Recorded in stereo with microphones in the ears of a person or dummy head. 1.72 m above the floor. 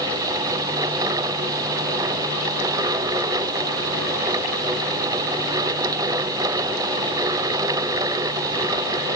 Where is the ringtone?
I don't hear a ringtone.